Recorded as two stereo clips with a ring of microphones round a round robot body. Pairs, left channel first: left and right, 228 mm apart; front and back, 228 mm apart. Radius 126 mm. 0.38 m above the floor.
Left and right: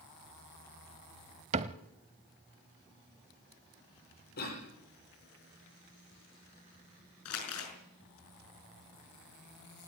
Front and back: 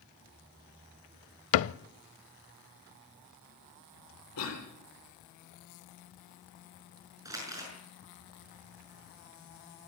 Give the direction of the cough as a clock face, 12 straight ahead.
11 o'clock.